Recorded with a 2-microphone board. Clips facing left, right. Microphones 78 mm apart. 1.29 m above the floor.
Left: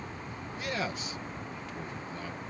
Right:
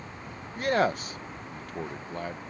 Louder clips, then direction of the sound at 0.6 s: Right 10 dB; 50° right (ahead or behind).